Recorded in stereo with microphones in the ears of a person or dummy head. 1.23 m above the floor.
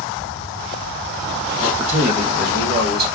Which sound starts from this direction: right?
A man speaking, at 1.6 s.